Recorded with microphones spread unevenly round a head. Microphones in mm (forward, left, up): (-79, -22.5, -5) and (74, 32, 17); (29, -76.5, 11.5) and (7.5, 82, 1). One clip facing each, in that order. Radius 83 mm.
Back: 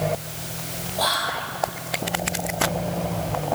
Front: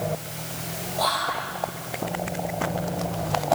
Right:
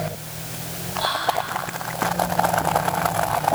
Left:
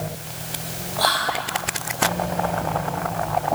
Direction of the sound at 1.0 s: 120° left.